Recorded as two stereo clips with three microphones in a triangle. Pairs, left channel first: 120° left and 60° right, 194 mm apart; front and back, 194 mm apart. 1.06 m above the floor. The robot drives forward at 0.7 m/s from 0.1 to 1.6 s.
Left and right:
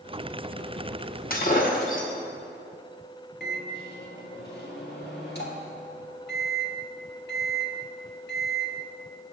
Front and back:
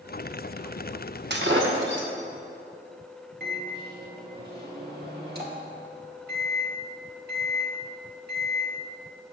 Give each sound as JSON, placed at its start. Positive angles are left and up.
{"t": 1.3, "sound": "breaking glass", "azimuth_deg": 160, "distance_m": 0.9}
{"t": 3.4, "sound": "a microwave", "azimuth_deg": 150, "distance_m": 1.6}